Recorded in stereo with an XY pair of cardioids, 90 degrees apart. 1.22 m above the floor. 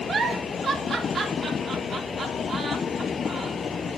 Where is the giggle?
55° right, 3 m.